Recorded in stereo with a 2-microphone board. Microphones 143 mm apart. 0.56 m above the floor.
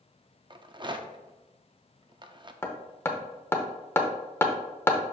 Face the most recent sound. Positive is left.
turn(degrees=15)  # may be behind; listen again after turning